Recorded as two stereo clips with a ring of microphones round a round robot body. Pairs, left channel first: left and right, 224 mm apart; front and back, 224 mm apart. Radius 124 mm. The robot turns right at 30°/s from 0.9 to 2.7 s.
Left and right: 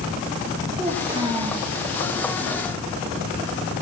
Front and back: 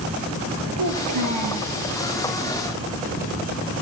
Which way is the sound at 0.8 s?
175° right.